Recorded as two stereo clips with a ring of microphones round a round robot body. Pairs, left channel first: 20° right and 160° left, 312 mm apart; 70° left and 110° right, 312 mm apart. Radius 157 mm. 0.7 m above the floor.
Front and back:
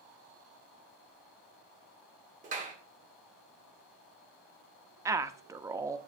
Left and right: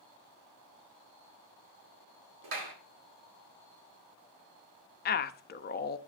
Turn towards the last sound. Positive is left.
turn(degrees=85)